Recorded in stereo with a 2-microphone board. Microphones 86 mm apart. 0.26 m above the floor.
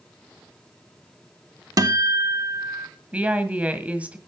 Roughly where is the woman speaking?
Centre.